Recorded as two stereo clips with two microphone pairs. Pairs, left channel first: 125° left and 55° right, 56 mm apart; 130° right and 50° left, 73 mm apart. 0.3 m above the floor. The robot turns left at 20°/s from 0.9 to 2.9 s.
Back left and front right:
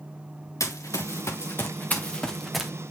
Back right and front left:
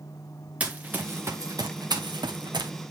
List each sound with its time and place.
0.6 s running footsteps: 120° left, 1.5 m; by 2.7 s 30° left, 1.3 m